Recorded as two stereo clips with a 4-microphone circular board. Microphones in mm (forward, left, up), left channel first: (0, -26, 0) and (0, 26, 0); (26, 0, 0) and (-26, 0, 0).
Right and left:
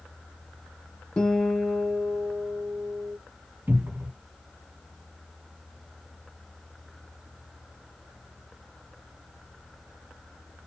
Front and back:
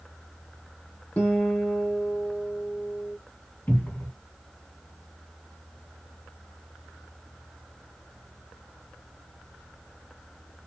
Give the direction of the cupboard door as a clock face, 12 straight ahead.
10 o'clock.